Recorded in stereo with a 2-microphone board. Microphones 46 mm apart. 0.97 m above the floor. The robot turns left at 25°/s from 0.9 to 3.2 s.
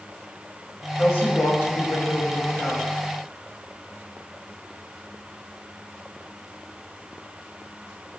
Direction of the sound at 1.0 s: 70° left.